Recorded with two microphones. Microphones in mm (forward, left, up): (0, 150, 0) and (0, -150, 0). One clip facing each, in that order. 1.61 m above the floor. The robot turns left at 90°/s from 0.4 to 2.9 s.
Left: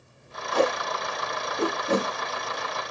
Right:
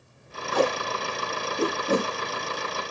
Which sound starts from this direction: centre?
Tape being pulled, at 0.5 s.